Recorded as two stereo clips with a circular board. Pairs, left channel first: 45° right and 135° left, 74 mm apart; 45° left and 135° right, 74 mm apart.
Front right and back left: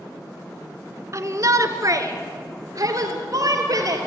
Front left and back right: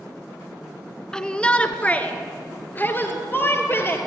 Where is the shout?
120° left, 1.5 m; by 4.0 s 100° left, 3.5 m.